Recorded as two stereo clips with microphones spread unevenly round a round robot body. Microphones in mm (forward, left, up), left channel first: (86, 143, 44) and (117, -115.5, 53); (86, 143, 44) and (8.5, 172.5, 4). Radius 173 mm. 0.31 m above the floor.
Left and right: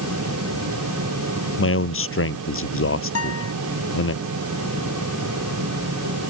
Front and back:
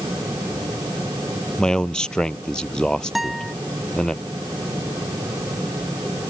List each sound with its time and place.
1.6 s a man speaking: 60° left
3.1 s a guitar: 70° left